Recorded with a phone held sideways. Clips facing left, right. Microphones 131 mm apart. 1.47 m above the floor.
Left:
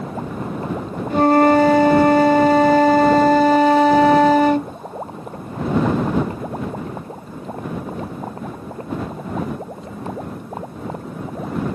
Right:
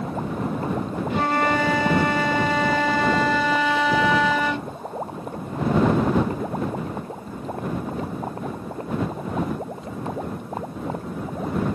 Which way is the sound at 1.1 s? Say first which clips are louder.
Left 10 dB; 40° left (ahead or behind).